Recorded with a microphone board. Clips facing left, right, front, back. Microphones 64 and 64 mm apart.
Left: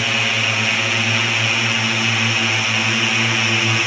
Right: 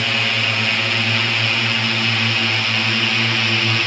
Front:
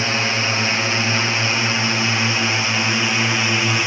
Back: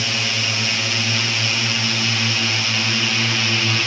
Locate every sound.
0.0 s a drone: 10° left; by 3.9 s 25° left